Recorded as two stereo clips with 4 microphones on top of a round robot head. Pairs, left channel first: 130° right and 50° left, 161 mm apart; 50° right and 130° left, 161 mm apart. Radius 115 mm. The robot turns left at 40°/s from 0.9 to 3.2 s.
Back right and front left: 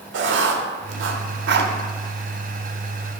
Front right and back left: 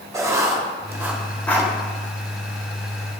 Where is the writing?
55° left, 1.0 m; by 1.7 s 25° left, 1.0 m.